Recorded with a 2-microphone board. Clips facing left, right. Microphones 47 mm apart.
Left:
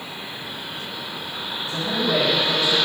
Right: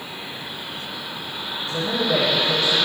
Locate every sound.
1.7 s a man speaking: 20° left (ahead or behind), 3 m; by 2.8 s 15° left (ahead or behind), 3.5 m